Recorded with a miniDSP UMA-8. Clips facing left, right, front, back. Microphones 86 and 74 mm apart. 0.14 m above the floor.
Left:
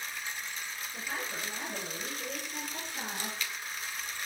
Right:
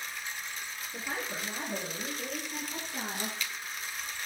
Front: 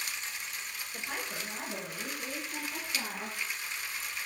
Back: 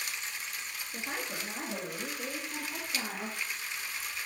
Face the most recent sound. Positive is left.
turn(degrees=-125)